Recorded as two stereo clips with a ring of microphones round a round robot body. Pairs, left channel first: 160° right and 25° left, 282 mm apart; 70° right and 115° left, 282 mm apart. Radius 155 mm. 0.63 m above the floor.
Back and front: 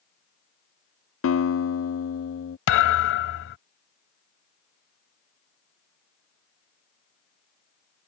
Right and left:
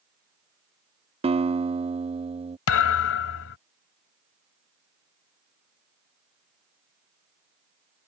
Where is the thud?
110° right.